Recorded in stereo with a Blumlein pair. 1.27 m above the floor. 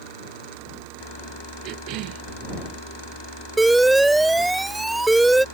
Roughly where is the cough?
Ahead right.